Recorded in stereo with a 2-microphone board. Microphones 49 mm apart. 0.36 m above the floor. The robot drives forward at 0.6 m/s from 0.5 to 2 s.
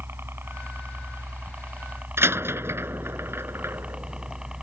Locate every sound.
0.0 s a helicopter: 50° right (ahead or behind); by 4.6 s 15° right (ahead or behind)
2.2 s a door slam: 55° right (ahead or behind)